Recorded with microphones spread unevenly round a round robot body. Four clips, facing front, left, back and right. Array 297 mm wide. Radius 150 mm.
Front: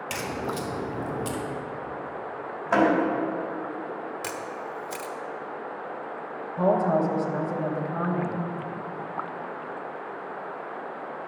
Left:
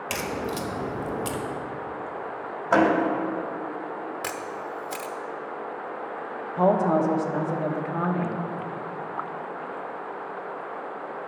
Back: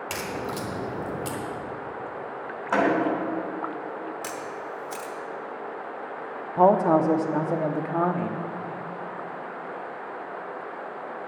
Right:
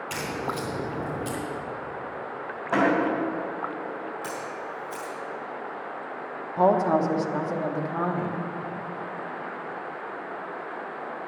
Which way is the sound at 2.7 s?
95° left.